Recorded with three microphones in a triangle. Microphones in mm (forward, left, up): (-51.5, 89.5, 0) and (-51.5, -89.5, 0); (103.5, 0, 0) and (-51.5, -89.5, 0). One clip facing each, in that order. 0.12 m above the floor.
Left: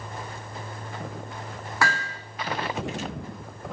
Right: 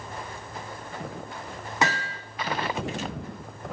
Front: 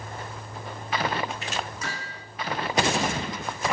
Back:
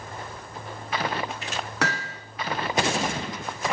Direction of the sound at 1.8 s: 160° right.